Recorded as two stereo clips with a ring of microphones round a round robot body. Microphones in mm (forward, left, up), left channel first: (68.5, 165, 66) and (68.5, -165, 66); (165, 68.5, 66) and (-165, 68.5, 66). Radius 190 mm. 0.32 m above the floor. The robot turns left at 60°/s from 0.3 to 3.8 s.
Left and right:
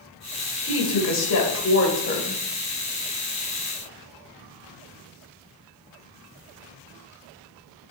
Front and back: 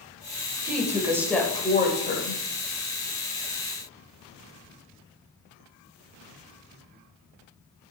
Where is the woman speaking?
130° left, 1.8 m; by 2.4 s 25° left, 1.8 m.